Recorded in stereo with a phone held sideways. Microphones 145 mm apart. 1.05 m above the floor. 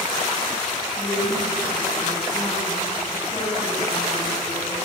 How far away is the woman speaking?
About 7 m.